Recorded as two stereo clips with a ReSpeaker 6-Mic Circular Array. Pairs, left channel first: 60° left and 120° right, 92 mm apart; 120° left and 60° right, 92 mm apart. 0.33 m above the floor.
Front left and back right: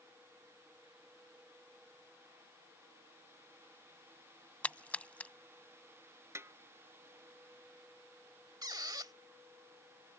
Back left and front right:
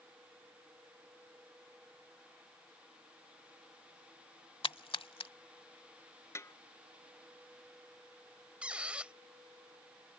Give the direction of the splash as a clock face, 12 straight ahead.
7 o'clock.